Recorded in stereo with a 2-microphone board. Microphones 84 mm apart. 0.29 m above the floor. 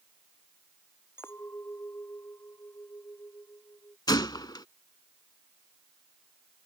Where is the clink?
30° left (ahead or behind).